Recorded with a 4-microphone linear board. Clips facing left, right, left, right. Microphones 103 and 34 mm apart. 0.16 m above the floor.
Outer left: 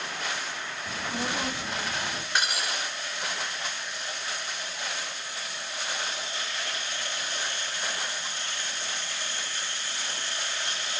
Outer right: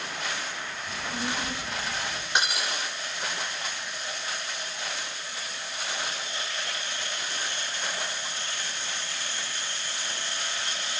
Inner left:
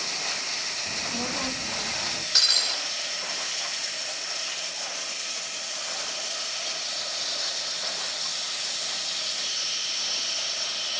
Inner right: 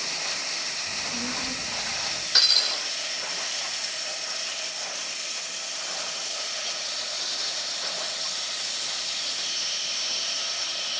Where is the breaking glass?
20° right (ahead or behind), 10 m.